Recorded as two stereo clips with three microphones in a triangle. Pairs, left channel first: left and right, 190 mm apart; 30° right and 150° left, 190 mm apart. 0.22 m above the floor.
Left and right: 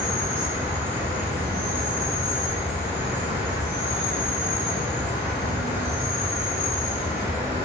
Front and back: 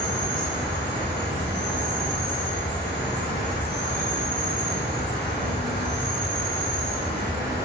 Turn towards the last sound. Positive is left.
turn(degrees=-30)